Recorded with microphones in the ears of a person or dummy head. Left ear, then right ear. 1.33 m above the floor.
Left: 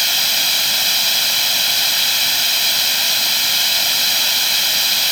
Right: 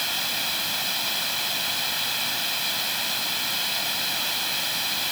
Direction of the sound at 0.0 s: 30° left (ahead or behind).